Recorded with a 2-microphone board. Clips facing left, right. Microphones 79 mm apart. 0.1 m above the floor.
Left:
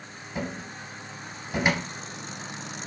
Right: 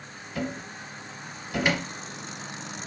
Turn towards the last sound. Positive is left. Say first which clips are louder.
# right 1 dB
turn(degrees=25)  # may be behind; listen again after turning